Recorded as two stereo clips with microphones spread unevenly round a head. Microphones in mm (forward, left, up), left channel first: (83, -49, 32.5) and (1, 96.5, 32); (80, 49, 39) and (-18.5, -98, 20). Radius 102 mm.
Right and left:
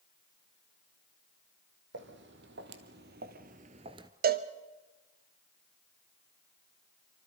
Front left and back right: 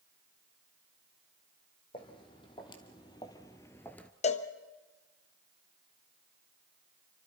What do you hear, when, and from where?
1.9 s footsteps: 120° left, 2.5 m; by 4.1 s 115° left, 0.9 m
4.2 s a cowbell: 110° left, 1.1 m